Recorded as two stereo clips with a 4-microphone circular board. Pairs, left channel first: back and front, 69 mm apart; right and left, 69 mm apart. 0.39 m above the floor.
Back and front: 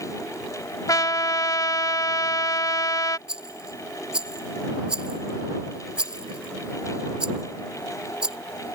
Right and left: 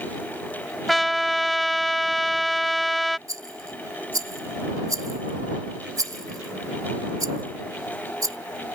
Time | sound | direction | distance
0.9 | a trumpet | straight behind | ?
3.3 | a rattle | 75° left | ?